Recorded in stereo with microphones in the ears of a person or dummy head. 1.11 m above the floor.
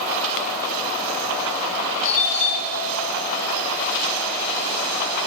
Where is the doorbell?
35° left (ahead or behind), 3 m.